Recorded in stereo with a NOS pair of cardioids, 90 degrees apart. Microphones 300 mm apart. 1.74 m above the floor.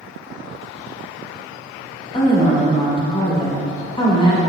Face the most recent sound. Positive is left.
turn(degrees=15)